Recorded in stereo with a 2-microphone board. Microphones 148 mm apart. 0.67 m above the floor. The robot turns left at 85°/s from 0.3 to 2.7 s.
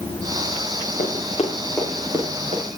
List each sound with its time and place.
1.0 s running footsteps: 80° left, 7 m; by 2.6 s 50° right (ahead or behind), 7 m